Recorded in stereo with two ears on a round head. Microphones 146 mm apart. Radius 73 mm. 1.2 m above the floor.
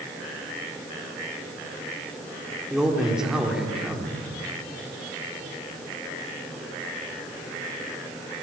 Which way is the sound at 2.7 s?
5° right (ahead or behind).